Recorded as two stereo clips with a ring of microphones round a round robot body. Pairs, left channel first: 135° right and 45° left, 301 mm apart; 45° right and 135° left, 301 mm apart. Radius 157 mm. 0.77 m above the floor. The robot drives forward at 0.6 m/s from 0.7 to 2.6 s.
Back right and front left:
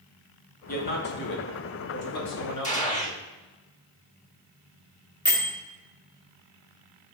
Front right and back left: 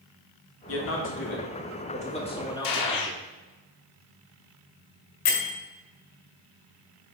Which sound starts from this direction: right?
A man speaking, at 0.7 s.